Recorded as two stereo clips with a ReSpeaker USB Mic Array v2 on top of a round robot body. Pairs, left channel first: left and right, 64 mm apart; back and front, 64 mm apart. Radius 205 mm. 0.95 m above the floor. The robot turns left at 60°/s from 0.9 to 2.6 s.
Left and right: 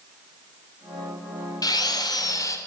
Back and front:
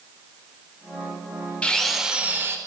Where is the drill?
105° left, 4 m; by 2.6 s 50° left, 4 m.